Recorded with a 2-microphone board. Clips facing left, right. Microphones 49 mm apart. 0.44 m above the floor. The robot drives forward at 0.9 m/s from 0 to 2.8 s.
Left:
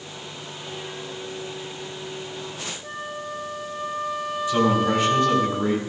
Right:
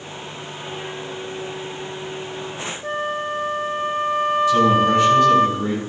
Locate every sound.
2.8 s a flute: 45° right (ahead or behind), 0.8 m
4.5 s a man speaking: 20° left (ahead or behind), 3 m